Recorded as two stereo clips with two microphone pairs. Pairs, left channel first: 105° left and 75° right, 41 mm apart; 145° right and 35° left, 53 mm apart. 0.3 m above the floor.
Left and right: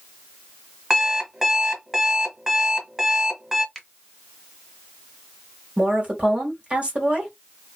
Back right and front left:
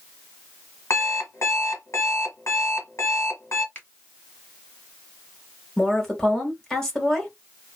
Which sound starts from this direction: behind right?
An alarm clock, at 0.9 s.